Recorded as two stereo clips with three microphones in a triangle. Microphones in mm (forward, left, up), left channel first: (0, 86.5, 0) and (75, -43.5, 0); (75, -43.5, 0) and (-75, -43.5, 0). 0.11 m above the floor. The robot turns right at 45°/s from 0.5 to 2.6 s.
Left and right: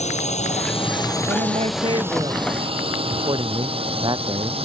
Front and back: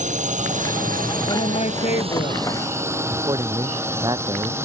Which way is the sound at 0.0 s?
155° left.